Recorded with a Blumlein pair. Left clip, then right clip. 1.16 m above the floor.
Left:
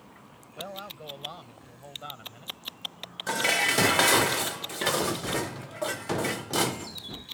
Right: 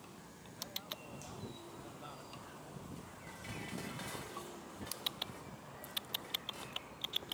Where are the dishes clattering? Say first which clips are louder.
Left 24 dB; 50° left.